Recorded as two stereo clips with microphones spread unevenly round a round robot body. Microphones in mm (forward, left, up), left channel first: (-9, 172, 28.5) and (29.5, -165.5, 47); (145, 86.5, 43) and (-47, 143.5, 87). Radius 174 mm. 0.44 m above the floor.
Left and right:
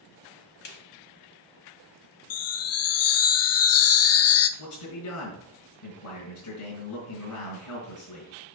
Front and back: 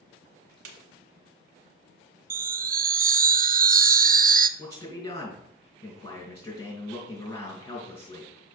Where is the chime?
110° left, 0.5 m.